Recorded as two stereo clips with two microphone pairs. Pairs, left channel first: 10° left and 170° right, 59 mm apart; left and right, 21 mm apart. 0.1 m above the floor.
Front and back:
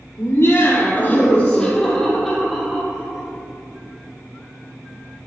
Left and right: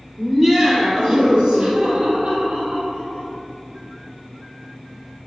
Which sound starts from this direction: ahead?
Laughter, at 0.2 s.